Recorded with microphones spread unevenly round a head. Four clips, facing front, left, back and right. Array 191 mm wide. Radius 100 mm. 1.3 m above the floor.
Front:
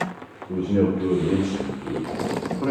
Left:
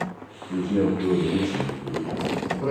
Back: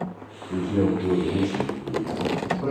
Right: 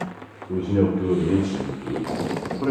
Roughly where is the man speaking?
Ahead right.